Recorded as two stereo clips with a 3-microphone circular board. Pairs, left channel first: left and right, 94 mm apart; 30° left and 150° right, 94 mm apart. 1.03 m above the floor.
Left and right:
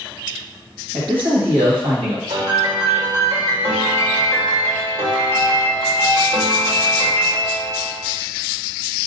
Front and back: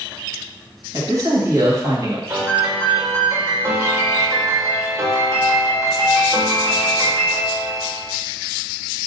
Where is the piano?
90° right, 1.5 m.